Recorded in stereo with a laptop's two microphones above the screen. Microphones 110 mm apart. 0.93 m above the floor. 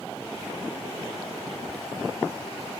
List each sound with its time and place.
1.7 s ticking: 20° left (ahead or behind), 1.8 m